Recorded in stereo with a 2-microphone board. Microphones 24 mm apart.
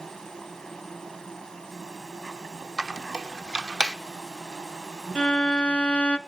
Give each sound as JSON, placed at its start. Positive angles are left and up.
{"t": 0.0, "sound": "an insect", "side_deg": 25, "distance_m": 3.5}
{"t": 2.8, "sound": "a squeak", "side_deg": -30, "distance_m": 0.6}
{"t": 5.2, "sound": "a violin", "side_deg": 55, "distance_m": 1.1}